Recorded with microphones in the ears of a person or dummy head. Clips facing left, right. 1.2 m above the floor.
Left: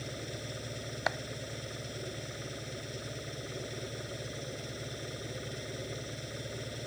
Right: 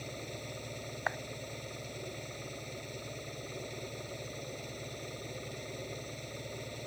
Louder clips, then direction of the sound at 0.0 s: Left 2 dB; 15° left (ahead or behind).